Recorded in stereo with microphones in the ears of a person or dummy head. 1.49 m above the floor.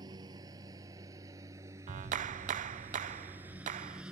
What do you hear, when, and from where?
0.0 s a lawn mower: 25° right (ahead or behind); by 4.1 s 10° right (ahead or behind)
1.9 s a clap: 40° right (ahead or behind)